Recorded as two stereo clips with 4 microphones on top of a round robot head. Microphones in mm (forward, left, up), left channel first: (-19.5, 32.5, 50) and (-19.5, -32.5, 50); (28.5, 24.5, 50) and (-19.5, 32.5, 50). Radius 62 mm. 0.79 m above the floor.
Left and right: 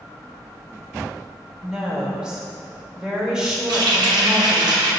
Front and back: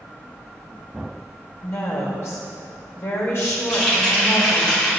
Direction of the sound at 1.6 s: 15° right.